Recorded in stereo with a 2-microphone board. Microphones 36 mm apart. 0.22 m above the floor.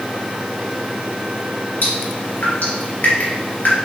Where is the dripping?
60° left (ahead or behind), 2 m.